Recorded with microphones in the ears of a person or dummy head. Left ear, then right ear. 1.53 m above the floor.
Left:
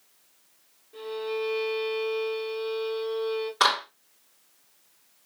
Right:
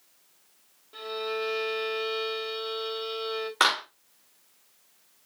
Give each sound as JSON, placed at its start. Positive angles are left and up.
{"t": 0.9, "sound": "a violin", "side_deg": -45, "distance_m": 1.4}
{"t": 3.6, "sound": "a clap", "side_deg": -15, "distance_m": 2.0}